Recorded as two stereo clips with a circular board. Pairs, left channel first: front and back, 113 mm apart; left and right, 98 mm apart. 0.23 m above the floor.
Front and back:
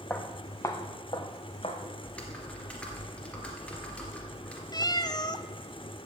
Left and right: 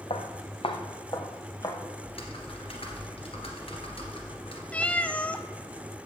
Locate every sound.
0.1 s footsteps: 80° left, 1.7 m; by 1.8 s 35° left, 2 m
2.0 s typing on a keyboard: 80° left, 2.5 m
4.7 s a cat meowing: 20° left, 0.6 m